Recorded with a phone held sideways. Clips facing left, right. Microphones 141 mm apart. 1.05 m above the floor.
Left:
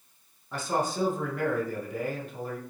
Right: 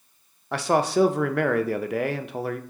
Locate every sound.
0.5 s a man speaking: 75° right (ahead or behind), 0.5 m